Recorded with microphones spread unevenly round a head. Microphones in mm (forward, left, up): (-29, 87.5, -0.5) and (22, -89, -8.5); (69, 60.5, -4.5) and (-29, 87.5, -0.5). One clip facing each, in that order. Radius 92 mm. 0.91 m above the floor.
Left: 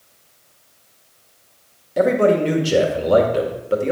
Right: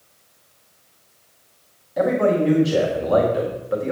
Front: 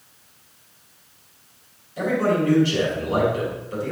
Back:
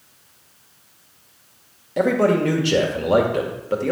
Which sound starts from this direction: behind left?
A man speaking, at 2.0 s.